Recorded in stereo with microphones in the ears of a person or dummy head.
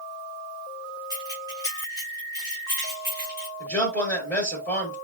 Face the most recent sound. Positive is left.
turn(degrees=10)  # may be behind; listen again after turning